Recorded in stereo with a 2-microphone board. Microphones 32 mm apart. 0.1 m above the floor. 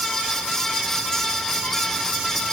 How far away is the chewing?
No chewing in this recording.